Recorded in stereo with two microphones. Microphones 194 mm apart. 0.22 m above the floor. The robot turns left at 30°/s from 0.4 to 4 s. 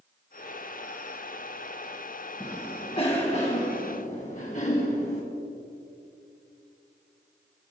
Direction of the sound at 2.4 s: 145° left.